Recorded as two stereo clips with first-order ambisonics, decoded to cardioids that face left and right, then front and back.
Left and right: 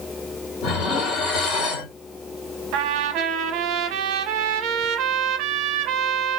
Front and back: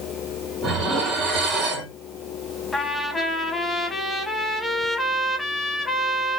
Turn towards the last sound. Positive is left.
turn(degrees=-80)